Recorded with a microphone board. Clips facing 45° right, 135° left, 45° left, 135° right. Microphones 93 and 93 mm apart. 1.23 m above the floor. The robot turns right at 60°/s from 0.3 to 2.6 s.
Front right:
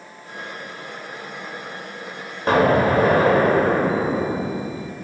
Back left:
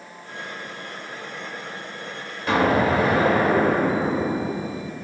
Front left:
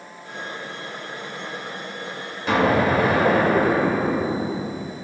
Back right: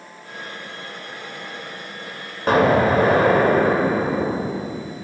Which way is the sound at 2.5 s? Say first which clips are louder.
Front right 3 dB, back right 3 dB; 90° right.